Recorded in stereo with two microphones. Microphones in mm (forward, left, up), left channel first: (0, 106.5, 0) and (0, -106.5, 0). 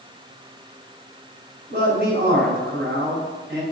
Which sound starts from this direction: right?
A man speaking, at 1.7 s.